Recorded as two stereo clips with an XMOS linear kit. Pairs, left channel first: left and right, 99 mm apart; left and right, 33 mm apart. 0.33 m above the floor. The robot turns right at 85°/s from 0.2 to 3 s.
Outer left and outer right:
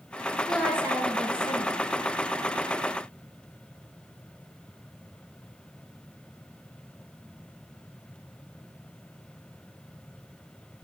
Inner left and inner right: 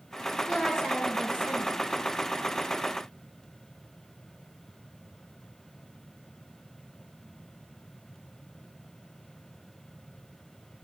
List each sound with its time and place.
0.5 s a woman speaking: 175° left, 5 m; by 1.8 s 75° right, 5 m